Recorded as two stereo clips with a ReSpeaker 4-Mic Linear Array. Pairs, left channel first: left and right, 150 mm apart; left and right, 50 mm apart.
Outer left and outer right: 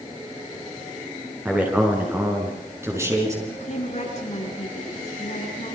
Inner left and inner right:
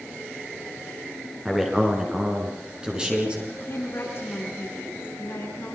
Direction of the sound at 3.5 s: 50° left (ahead or behind).